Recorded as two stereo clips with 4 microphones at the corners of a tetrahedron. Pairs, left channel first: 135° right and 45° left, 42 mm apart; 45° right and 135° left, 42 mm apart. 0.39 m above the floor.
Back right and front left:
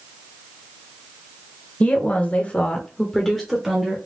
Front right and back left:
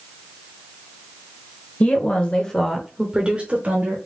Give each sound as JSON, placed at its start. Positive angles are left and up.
{"t": 1.8, "sound": "a woman speaking", "azimuth_deg": -90, "distance_m": 1.2}